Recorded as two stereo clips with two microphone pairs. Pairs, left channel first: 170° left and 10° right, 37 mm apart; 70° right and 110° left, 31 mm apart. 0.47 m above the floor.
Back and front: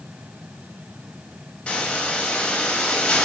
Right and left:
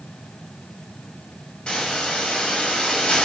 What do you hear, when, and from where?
1.7 s a hiss: 130° right, 0.8 m